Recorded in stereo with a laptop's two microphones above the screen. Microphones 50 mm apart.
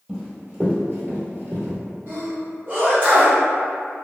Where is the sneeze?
40° right (ahead or behind), 0.8 m.